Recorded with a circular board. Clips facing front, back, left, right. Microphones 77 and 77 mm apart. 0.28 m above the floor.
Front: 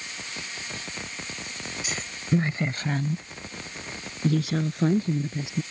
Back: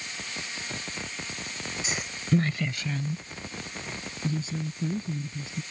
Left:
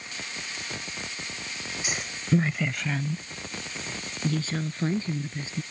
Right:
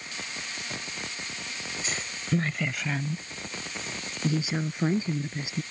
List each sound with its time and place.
1.8 s a woman speaking: 145° left; by 5.6 s 15° right